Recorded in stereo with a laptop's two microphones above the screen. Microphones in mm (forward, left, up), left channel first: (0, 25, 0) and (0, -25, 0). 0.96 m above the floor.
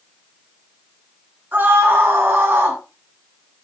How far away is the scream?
About 9.5 m.